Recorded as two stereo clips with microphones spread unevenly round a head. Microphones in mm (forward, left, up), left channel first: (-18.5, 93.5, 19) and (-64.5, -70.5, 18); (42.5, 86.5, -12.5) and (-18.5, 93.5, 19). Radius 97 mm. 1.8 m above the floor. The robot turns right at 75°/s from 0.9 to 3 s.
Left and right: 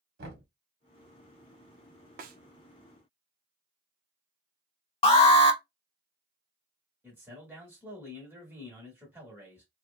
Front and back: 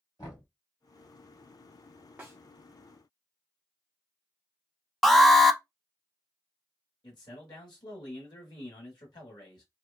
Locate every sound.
0.2 s knocking: 80° right, 0.9 m
2.2 s a snare drum: 135° right, 0.5 m; by 2.4 s 120° right, 0.5 m
5.0 s an alarm: 35° left, 0.5 m
7.0 s a man speaking: 25° right, 1.1 m